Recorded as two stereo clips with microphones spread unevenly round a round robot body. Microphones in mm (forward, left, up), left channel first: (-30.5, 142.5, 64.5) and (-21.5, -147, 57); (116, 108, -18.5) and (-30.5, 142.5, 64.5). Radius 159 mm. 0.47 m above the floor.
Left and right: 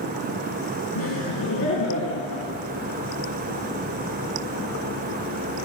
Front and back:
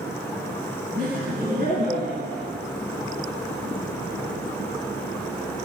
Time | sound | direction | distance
0.9 | laughter | 135° left | 4 m